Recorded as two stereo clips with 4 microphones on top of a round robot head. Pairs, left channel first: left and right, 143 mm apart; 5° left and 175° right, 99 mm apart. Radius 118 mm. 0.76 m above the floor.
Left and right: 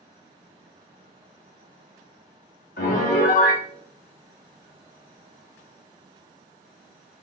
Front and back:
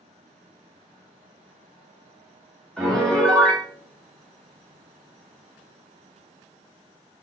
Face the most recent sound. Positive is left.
turn(degrees=85)